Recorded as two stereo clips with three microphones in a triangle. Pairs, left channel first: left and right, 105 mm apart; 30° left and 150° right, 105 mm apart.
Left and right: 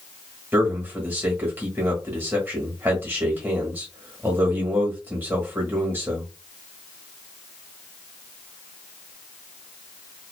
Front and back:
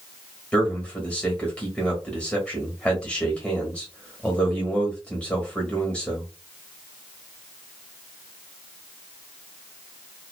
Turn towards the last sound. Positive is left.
turn(degrees=-40)